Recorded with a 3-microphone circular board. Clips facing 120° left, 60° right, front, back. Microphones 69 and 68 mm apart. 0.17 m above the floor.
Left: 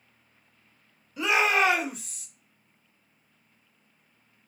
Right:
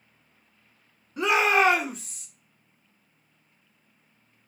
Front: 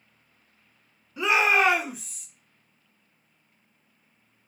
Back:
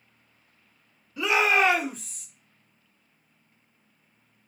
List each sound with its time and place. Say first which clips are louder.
1.2 s a shout: right 2 dB, front 1 dB; 60° right, 1.8 m; by 2.3 s 85° right, 1.5 m